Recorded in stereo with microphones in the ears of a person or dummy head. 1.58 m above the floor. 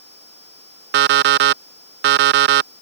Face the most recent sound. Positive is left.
turn(degrees=-50)  # may be behind; listen again after turning